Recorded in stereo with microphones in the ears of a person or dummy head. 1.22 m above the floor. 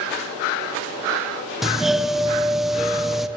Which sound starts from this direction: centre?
A doorbell, at 1.6 s.